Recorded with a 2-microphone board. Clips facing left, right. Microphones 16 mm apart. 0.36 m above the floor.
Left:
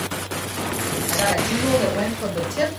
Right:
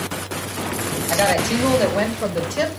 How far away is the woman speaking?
About 1.3 m.